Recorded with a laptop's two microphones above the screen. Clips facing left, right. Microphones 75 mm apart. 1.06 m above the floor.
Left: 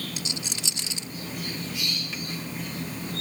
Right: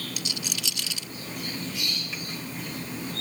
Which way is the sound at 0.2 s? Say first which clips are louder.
Even; 30° left (ahead or behind).